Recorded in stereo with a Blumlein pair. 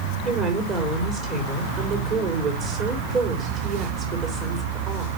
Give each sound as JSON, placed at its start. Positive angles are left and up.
{"t": 0.2, "sound": "a woman speaking", "azimuth_deg": -30, "distance_m": 3.5}